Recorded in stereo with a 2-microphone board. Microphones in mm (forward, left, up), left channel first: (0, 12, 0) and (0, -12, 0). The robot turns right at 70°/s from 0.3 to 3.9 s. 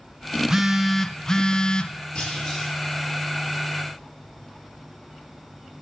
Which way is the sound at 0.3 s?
40° right.